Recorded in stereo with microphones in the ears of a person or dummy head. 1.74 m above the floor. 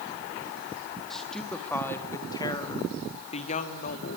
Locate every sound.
1.1 s a woman speaking: 5° left (ahead or behind), 3 m; by 4.2 s 55° left (ahead or behind), 3 m